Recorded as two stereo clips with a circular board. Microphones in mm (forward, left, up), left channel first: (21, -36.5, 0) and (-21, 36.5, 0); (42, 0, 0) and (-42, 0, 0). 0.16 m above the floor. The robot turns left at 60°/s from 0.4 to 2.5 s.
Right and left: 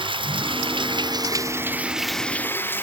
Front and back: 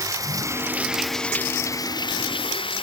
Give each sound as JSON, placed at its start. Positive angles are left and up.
{"t": 0.0, "sound": "running water", "azimuth_deg": 130}